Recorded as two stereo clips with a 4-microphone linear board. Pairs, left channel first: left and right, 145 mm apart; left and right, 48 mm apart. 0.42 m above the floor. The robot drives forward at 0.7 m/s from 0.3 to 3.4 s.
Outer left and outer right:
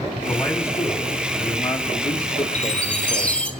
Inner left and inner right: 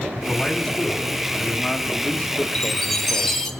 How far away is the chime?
About 2 m.